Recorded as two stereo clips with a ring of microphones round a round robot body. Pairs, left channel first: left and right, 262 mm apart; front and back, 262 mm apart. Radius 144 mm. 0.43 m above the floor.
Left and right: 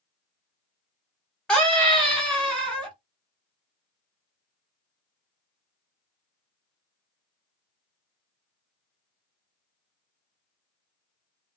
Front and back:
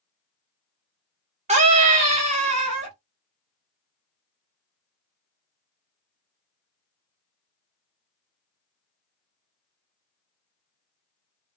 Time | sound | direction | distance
1.5 | a scream | 170° left | 0.7 m